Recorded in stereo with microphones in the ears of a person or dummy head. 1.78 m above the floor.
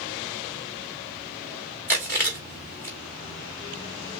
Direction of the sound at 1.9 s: 15° left (ahead or behind).